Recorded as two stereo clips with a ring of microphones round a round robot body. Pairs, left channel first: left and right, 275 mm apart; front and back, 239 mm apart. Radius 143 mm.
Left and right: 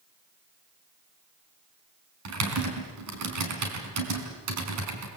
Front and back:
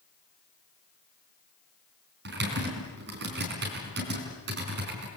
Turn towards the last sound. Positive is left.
turn(degrees=-125)